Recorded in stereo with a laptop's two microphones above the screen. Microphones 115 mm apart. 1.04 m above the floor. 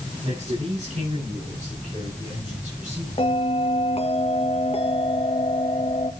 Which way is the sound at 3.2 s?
60° left (ahead or behind).